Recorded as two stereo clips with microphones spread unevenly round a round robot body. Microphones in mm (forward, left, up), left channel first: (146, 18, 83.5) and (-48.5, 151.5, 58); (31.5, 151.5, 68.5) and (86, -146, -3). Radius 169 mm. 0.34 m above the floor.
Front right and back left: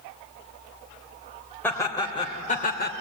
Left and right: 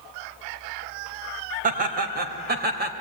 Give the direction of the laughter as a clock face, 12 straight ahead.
4 o'clock.